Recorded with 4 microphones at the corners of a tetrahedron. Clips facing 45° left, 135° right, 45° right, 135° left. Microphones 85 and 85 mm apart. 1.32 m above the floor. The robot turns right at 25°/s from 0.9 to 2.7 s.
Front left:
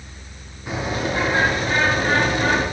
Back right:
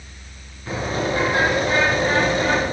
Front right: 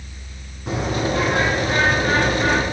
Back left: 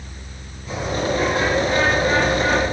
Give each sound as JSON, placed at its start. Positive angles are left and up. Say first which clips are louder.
{"t": 0.7, "sound": "a bird", "louder": "back right 1 dB, even", "azimuth_deg": -30, "distance_m": 8.5}